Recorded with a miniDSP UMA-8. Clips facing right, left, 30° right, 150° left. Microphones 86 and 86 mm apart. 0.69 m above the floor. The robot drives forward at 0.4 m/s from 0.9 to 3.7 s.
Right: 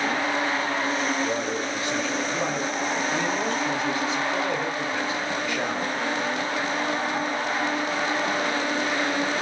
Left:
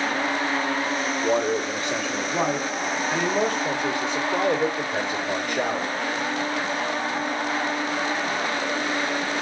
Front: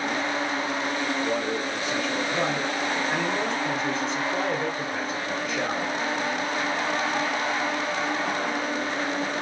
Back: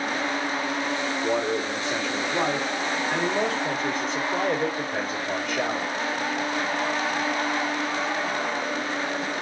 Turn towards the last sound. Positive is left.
turn(degrees=120)